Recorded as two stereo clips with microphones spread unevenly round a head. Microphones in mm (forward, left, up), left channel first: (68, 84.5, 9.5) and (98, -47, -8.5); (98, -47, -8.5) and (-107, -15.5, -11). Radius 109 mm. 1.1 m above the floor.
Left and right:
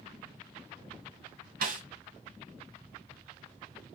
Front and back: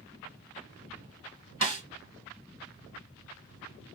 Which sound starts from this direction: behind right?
A snare drum, at 1.6 s.